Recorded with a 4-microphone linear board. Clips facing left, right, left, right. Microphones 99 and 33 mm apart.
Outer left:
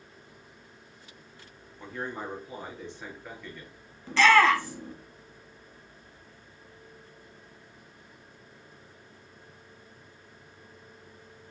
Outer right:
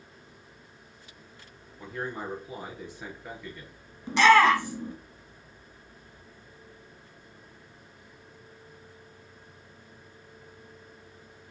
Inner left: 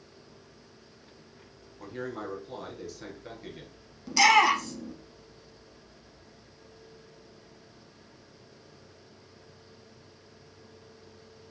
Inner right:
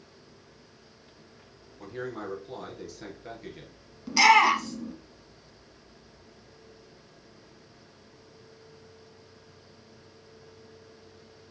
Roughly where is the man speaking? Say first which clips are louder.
Outer right 1 dB, inner right 1 dB; centre.